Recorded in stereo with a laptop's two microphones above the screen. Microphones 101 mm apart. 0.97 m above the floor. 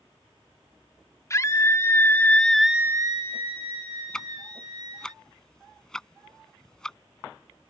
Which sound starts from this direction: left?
A scream, at 1.3 s.